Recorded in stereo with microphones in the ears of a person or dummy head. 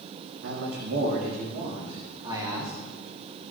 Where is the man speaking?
70° right (ahead or behind), 3 m; by 2.7 s 15° right (ahead or behind), 3.5 m.